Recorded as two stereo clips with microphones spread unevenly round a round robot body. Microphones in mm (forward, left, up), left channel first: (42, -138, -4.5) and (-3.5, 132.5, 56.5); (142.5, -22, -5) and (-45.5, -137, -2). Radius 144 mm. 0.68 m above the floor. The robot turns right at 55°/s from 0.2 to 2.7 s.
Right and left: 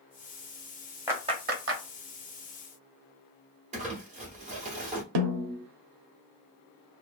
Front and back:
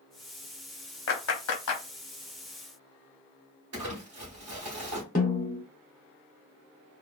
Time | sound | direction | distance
1.1 | a clap | 15° left | 0.9 m
3.7 | crumpling | 170° left | 1.3 m
5.2 | a snare drum | 95° left | 0.6 m